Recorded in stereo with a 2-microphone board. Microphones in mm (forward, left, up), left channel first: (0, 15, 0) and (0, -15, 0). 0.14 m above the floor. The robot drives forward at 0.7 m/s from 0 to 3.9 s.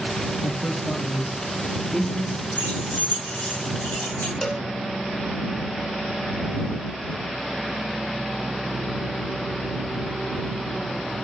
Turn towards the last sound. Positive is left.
turn(degrees=20)  # may be behind; listen again after turning